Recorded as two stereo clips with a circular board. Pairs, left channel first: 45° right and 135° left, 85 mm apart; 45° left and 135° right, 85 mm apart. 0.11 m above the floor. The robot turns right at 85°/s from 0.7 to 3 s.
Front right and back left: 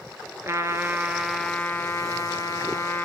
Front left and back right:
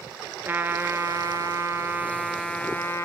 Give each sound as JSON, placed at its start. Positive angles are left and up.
{"t": 0.5, "sound": "a trumpet", "azimuth_deg": 175, "distance_m": 0.6}